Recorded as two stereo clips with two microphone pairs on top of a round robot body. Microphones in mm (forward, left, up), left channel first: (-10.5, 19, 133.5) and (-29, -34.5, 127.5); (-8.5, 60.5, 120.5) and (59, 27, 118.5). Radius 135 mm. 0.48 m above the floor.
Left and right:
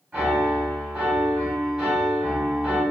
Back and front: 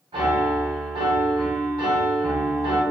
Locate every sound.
0.1 s a piano: 30° right, 1.1 m